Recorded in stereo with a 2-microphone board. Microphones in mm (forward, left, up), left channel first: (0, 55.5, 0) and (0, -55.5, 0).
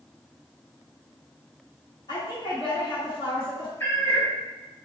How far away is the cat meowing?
About 0.9 m.